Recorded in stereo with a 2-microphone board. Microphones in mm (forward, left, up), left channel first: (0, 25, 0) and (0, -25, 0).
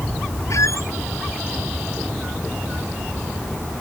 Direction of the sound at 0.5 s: 80° left.